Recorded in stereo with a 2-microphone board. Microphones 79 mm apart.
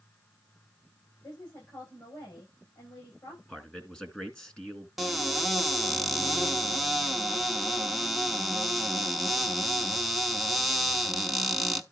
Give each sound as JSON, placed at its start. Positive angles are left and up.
{"t": 1.2, "sound": "a woman speaking", "side_deg": 50, "distance_m": 9.0}
{"t": 3.5, "sound": "a man speaking", "side_deg": 10, "distance_m": 2.0}
{"t": 5.0, "sound": "a cupboard door", "side_deg": 0, "distance_m": 0.9}